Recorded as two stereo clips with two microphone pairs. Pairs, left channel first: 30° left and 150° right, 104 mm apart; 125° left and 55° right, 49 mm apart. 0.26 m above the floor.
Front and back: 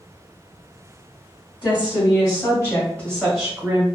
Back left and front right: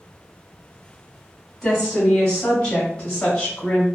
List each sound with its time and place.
1.6 s a woman speaking: 50° left, 1.4 m; by 3.9 s 170° left, 1.0 m